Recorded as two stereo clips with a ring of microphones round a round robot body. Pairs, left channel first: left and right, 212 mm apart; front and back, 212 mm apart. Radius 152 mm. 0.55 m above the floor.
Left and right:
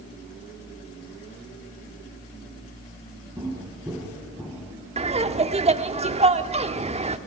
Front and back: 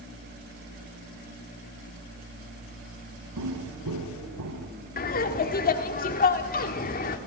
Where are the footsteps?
170° right, 3.5 m; by 4.7 s straight behind, 2.5 m.